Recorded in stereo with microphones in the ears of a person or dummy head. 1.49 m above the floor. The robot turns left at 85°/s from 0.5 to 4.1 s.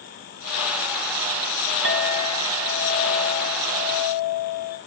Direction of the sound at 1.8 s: 85° right.